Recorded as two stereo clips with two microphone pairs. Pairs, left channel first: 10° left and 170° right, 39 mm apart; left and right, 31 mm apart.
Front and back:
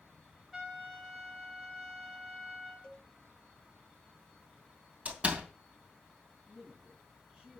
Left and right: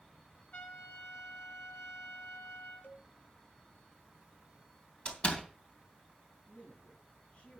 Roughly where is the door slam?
Behind left.